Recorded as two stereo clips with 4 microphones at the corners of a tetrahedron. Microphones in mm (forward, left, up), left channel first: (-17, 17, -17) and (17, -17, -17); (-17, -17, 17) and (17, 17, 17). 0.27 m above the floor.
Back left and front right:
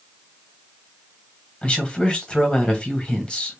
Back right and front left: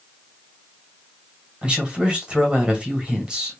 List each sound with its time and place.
1.6 s a man speaking: 95° left, 1.4 m